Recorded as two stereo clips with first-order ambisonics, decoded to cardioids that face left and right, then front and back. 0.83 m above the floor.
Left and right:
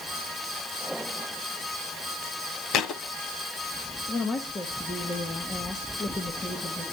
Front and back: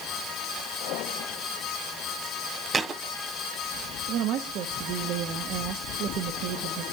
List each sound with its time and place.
2.7 s a thud: 110° left, 0.9 m
4.1 s a woman speaking: 160° left, 1.4 m